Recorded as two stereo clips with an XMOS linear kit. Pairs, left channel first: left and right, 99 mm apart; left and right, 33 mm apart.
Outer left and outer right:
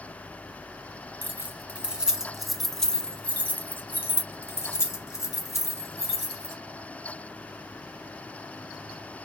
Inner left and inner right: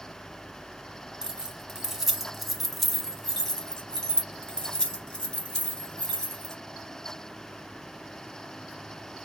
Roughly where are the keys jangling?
Centre.